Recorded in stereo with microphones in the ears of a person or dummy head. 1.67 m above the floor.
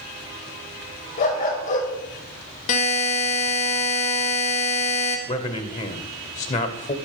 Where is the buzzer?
45° left (ahead or behind), 1.7 m.